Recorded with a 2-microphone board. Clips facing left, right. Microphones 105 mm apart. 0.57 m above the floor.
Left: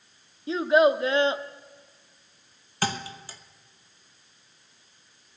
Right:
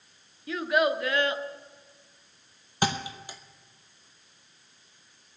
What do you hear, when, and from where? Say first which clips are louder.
0.5 s a child speaking: left 6 dB; 25° left (ahead or behind), 0.5 m
2.8 s a thud: right 1 dB; 20° right (ahead or behind), 0.8 m